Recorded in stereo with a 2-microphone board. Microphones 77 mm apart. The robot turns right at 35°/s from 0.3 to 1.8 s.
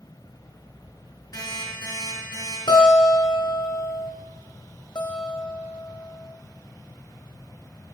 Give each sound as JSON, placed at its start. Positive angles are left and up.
{"t": 1.3, "sound": "an alarm clock", "side_deg": 75, "distance_m": 2.0}
{"t": 2.7, "sound": "a guitar", "side_deg": 85, "distance_m": 1.3}
{"t": 5.0, "sound": "a guitar", "side_deg": 70, "distance_m": 0.7}